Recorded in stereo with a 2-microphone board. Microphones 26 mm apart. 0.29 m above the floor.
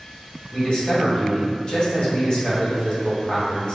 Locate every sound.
0.5 s a man speaking: 45° left (ahead or behind), 1.3 m